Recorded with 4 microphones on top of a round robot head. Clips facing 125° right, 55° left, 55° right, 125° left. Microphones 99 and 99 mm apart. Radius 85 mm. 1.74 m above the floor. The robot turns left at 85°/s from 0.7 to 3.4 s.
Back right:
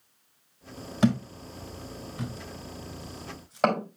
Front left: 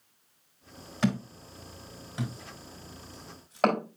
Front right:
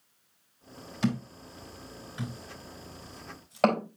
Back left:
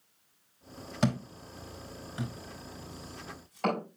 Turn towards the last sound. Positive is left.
turn(degrees=-35)